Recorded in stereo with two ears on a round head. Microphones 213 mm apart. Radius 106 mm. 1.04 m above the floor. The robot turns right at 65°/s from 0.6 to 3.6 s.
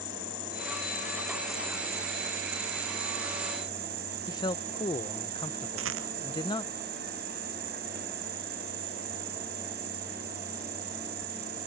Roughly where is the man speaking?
Centre.